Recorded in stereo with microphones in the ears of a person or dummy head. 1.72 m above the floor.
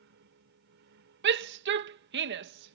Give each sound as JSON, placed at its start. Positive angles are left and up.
{"t": 0.0, "sound": "a fan", "side_deg": -70}
{"t": 1.2, "sound": "a shout", "side_deg": -65}